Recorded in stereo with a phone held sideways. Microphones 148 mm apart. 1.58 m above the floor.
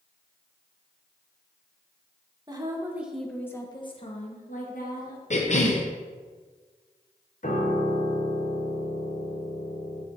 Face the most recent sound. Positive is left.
turn(degrees=55)  # may be behind; listen again after turning